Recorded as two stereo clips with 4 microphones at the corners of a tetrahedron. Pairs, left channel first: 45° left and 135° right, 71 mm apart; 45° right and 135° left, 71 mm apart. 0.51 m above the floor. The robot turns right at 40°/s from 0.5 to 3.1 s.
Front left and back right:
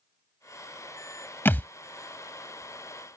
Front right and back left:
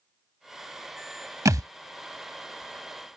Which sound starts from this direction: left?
A thud, at 1.4 s.